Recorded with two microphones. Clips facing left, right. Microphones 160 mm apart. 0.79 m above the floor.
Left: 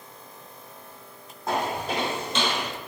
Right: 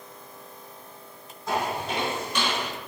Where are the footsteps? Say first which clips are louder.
Left 1 dB; 50° left (ahead or behind), 1.3 m; by 2.7 s 5° left (ahead or behind), 0.7 m.